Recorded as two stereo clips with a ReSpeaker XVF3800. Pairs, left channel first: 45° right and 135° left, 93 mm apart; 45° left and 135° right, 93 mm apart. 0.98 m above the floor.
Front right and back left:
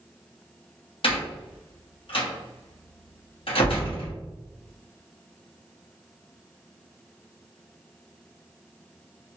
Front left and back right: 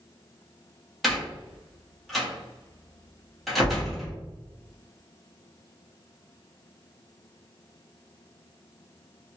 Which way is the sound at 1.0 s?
45° right.